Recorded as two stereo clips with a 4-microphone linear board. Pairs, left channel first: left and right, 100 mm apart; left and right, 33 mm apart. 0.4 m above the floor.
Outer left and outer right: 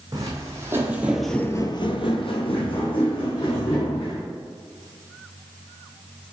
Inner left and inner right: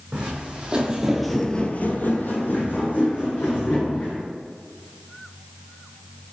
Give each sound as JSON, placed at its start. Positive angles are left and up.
{"t": 0.1, "sound": "footsteps", "side_deg": -35, "distance_m": 1.4}